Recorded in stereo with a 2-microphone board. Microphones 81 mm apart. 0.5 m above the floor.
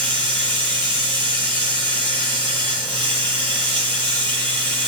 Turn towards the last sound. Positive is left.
turn(degrees=20)  # may be behind; listen again after turning